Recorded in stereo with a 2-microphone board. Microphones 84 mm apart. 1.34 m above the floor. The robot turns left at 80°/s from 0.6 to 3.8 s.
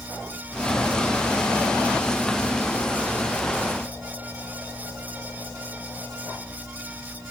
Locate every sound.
Only background noise.